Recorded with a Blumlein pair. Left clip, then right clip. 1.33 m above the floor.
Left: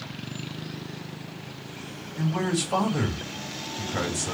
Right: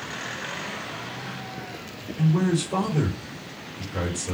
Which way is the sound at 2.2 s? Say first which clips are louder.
Right 2 dB; 65° left.